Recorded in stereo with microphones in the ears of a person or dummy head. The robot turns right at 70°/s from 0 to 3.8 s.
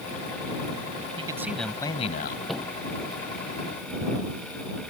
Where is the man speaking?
30° right; by 2.4 s 55° left.